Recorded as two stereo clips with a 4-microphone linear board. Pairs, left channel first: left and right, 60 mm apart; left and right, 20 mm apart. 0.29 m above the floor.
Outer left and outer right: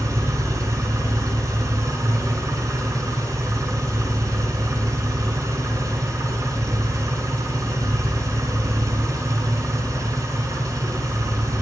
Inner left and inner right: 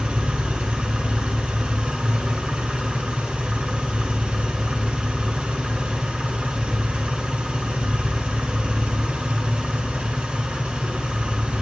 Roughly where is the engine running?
Right.